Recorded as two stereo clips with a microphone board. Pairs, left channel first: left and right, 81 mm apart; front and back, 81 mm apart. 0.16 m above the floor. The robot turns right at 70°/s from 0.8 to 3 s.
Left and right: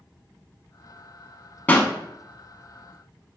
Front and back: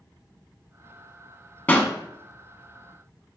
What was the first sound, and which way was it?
A pop, 45° left.